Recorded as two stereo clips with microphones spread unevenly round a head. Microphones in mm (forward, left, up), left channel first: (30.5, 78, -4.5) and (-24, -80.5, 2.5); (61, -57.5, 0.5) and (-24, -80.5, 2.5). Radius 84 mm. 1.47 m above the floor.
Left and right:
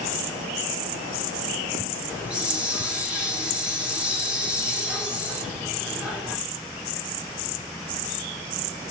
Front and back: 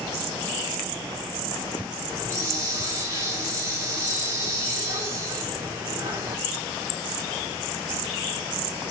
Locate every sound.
2.1 s a hiss: 175° left, 1.1 m